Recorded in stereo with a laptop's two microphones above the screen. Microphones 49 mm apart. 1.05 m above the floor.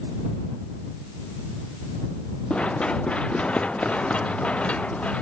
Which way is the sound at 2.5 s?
25° left (ahead or behind).